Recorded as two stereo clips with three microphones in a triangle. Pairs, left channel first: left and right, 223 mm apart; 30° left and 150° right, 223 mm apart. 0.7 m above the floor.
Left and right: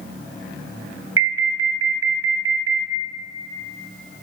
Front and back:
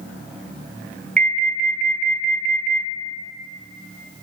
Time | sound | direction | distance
1.2 | an alarm | 100° right | 3 m